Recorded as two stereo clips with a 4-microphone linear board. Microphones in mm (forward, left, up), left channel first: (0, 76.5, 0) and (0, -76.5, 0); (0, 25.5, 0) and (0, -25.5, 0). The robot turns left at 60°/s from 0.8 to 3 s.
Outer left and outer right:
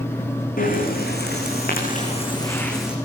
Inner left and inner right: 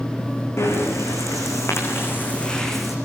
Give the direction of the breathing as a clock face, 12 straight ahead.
8 o'clock.